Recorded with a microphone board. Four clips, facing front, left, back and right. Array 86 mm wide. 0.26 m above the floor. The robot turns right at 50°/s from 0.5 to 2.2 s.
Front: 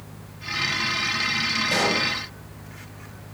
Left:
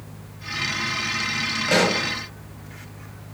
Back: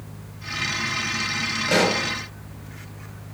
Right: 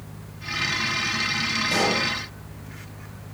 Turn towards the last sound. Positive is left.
turn(degrees=145)